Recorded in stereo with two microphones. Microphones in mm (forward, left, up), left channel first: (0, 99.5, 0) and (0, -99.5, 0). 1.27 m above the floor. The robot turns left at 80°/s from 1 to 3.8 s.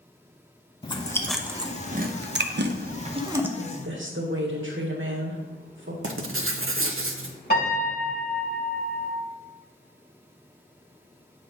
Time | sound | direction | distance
0.8 | chewing | 20° left (ahead or behind) | 0.6 m
3.6 | a woman speaking | 80° right | 1.4 m
6.0 | writing | 90° right | 0.6 m
7.5 | a piano | 50° left (ahead or behind) | 2.5 m